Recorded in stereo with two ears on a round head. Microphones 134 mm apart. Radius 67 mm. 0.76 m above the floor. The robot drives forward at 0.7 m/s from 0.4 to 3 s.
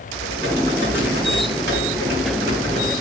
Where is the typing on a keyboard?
85° right, 6.5 m; by 2.9 s 75° right (ahead or behind), 7 m.